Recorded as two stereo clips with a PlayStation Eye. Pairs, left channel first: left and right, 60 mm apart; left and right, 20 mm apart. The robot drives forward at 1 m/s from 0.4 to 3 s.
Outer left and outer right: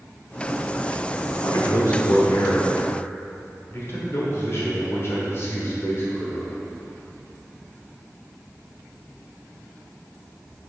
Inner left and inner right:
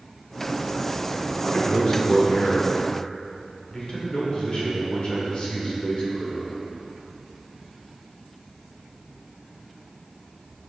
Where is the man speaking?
55° left (ahead or behind), 1.8 m; by 6.6 s 45° left (ahead or behind), 2 m.